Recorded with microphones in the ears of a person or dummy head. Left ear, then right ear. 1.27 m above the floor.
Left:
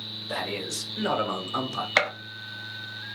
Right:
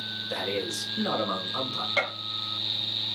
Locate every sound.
0.3 s a man speaking: 75° left (ahead or behind), 2.0 m; by 1.9 s 60° left (ahead or behind), 0.9 m
2.0 s a gunshot: 55° left (ahead or behind), 0.9 m